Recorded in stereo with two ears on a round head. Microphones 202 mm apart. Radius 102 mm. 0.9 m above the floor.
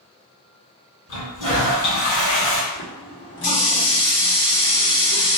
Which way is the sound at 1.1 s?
60° left (ahead or behind).